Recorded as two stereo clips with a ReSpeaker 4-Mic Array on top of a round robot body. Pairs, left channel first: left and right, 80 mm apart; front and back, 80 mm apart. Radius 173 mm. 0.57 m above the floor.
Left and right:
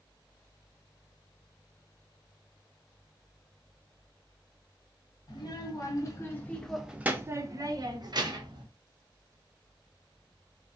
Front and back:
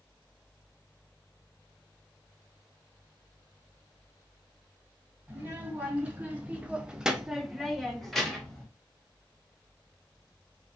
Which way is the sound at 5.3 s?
110° left.